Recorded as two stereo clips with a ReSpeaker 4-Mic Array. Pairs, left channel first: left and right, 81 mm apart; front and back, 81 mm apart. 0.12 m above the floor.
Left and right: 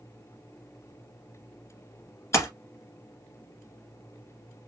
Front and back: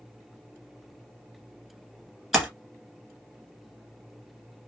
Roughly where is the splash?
Left.